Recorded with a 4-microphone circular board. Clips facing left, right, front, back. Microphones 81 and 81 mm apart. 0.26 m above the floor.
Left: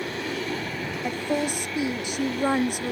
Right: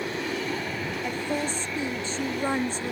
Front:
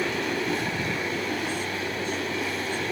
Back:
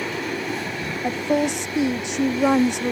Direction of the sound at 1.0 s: 165° left.